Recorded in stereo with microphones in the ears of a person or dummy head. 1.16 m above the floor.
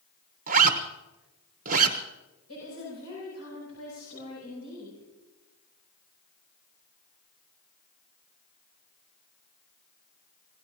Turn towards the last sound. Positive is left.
turn(degrees=85)